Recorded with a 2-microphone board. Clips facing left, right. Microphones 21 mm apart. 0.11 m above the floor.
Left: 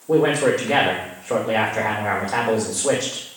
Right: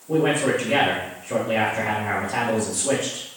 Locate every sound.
0.1 s a man speaking: 75° left (ahead or behind), 6.5 m